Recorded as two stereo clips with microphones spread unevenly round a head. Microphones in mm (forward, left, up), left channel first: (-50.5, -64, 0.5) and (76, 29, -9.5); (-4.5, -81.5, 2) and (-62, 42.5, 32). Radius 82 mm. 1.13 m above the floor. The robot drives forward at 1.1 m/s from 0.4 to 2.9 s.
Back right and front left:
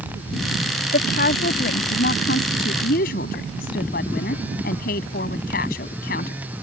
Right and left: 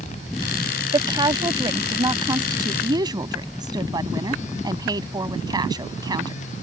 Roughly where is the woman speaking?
Behind.